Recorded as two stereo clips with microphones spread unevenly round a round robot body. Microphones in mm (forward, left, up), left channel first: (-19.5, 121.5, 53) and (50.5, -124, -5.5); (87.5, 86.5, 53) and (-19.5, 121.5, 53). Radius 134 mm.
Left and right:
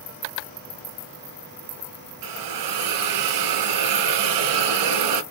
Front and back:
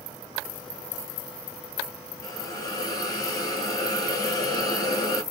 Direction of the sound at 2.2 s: 95° right.